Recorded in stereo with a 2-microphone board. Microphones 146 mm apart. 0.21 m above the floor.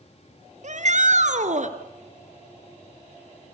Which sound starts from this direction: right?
A shout, at 0.6 s.